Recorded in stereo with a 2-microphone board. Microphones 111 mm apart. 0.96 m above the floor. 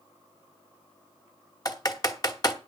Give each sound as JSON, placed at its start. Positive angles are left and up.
{"t": 1.6, "sound": "typing on a keyboard", "side_deg": 35, "distance_m": 1.2}